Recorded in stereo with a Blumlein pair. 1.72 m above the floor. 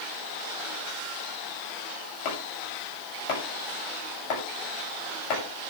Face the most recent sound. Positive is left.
turn(degrees=40)